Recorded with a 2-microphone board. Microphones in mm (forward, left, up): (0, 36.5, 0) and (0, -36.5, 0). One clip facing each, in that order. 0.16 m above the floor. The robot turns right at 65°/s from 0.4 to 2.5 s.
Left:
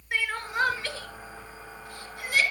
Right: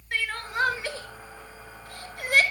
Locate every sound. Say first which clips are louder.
0.1 s crying: left 1 dB; 15° left (ahead or behind), 1.1 m; by 2.4 s 55° right (ahead or behind), 1.1 m